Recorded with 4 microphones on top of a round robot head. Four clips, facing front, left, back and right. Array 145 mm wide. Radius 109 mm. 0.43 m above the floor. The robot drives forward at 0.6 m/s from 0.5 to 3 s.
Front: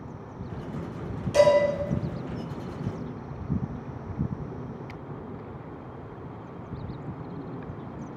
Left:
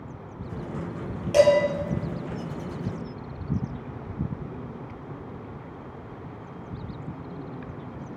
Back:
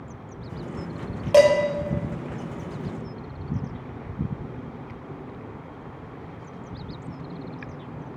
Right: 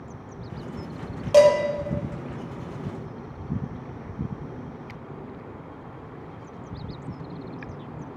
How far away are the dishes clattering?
About 1.5 m.